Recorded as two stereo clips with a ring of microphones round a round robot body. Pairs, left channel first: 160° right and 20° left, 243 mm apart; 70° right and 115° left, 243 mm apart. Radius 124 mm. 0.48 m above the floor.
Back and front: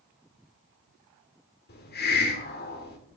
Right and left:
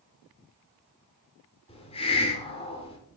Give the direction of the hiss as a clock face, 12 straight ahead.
4 o'clock.